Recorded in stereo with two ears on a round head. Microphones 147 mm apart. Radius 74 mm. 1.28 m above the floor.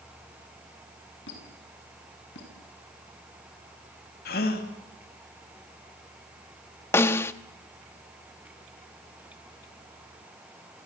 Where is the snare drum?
15° left (ahead or behind), 1.0 m.